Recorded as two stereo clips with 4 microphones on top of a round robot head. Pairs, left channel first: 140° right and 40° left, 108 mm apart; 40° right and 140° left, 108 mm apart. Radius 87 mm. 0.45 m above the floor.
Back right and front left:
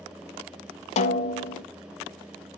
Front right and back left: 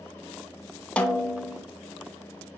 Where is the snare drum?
120° right, 0.6 m.